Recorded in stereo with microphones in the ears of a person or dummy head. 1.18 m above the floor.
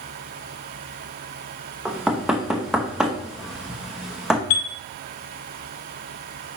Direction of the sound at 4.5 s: 75° left (ahead or behind).